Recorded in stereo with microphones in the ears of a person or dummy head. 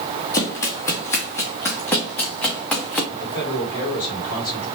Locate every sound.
0.3 s running footsteps: 15° left (ahead or behind), 1.8 m; by 3.0 s 5° left (ahead or behind), 3 m
3.1 s a man speaking: 25° left (ahead or behind), 6 m